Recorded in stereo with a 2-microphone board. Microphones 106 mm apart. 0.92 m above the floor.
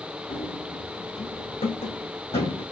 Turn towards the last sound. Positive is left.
turn(degrees=75)  # may be behind; listen again after turning